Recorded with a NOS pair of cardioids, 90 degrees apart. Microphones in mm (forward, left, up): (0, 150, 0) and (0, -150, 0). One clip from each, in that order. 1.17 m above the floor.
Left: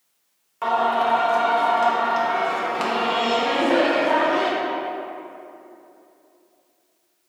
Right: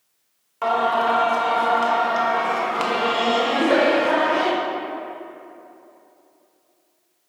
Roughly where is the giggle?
Ahead right.